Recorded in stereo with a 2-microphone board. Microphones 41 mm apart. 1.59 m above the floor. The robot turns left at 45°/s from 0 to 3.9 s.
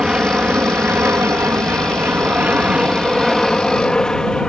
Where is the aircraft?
25° right; by 4.5 s 160° left.